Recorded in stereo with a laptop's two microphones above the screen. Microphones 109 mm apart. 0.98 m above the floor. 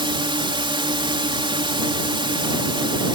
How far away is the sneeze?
No sneeze in this recording.